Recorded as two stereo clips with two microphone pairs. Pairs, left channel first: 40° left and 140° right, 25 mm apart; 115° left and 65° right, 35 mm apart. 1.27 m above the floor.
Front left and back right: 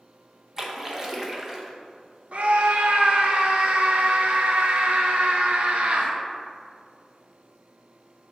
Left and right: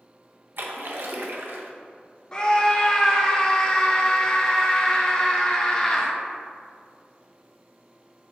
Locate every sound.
0.6 s a splash: 75° right, 0.7 m
2.3 s a scream: straight behind, 0.7 m